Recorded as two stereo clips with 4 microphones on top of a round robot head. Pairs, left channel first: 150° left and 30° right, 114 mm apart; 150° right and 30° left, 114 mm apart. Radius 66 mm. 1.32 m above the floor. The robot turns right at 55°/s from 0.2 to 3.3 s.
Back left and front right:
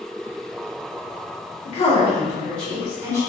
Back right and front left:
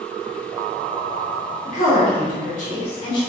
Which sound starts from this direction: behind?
A woman speaking, at 1.6 s.